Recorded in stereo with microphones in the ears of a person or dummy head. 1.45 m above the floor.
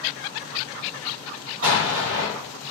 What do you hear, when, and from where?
1.6 s an explosion: 45° right (ahead or behind), 1.8 m